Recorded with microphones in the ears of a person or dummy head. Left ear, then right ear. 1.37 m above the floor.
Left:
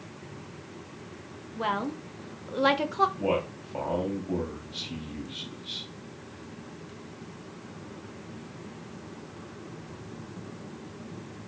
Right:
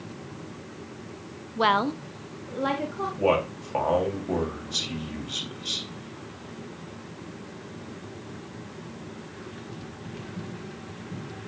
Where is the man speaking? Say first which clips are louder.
Right 5 dB; 55° right (ahead or behind), 3 m.